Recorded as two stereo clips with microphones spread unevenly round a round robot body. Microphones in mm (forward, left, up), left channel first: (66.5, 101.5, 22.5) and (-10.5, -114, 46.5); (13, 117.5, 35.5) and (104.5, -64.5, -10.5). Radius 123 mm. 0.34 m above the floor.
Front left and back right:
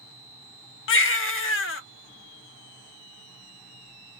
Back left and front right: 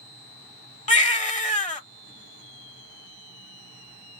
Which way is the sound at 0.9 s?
60° left.